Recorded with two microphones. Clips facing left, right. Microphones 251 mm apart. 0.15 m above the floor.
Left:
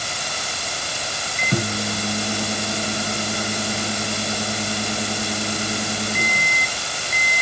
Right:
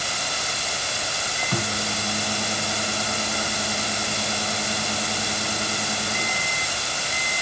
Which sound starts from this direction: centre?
A microwave, at 1.4 s.